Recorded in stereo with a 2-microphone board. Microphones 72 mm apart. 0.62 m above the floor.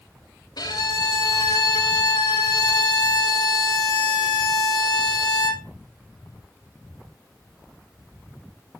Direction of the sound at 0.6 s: 75° left (ahead or behind).